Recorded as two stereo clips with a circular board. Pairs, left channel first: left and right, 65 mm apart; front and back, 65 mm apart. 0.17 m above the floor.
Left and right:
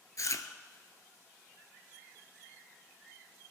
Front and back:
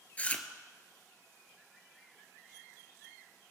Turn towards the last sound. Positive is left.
turn(degrees=65)